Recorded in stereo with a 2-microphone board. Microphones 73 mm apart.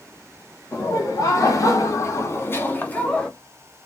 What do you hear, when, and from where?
0.7 s laughter: 40° left (ahead or behind), 1.1 m; by 3.3 s 15° left (ahead or behind), 0.9 m